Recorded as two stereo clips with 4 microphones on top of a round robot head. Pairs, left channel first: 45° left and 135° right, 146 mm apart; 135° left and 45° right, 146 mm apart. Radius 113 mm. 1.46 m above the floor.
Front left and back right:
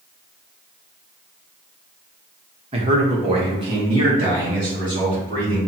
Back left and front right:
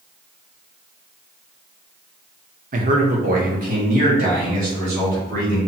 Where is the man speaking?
80° right, 0.7 m; by 5.6 s 75° right, 4.5 m.